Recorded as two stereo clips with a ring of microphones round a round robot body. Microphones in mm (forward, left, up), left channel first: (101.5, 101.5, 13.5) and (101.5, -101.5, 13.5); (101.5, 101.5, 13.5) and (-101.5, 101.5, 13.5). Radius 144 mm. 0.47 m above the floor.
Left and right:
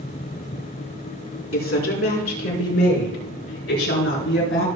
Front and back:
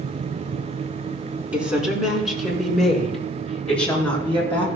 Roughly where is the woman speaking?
Left.